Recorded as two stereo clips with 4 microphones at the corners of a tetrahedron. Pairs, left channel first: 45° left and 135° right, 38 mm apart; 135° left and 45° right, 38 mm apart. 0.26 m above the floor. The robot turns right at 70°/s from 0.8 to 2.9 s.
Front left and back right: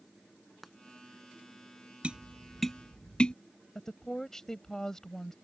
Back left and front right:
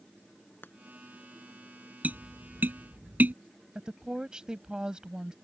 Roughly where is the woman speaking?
Ahead.